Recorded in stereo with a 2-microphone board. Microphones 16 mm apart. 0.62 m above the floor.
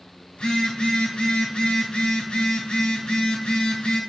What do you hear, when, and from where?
0.3 s a phone buzzing: 85° left, 3 m